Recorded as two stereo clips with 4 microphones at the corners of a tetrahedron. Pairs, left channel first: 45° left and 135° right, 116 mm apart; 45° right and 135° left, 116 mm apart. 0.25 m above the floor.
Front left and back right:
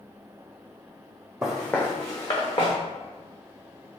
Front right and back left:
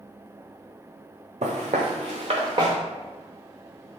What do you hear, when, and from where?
1.4 s footsteps: 140° left, 0.7 m; by 2.8 s 85° left, 1.1 m